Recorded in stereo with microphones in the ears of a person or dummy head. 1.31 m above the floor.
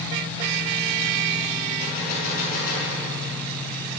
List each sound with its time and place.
1.8 s a gunshot: 50° left (ahead or behind), 6 m